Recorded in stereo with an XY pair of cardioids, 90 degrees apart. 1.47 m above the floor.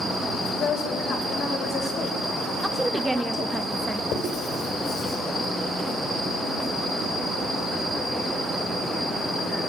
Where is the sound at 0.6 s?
65° left, 6.5 m.